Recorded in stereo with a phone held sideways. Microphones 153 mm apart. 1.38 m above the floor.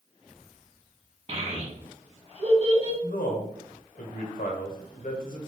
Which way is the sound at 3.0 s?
65° left (ahead or behind).